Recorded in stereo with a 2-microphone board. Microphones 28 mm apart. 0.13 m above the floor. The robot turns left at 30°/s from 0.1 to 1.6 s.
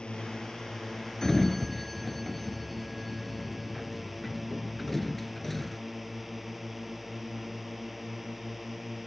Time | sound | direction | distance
0.0 | a drone | 40° left | ?
1.2 | a sliding door | 15° left (ahead or behind) | ?